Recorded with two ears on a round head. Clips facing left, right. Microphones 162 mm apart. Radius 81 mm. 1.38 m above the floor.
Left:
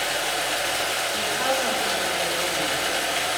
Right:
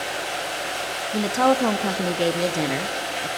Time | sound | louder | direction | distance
0.0 | running water | left 1 dB | 65° left (ahead or behind) | 4 m
1.1 | a woman speaking | right 8 dB | 70° right (ahead or behind) | 0.6 m